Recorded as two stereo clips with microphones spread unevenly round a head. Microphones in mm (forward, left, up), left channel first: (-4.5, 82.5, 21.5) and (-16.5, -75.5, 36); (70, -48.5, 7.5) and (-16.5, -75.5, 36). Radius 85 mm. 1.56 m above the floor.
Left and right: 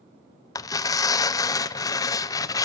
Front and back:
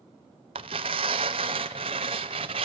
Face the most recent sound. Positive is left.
turn(degrees=155)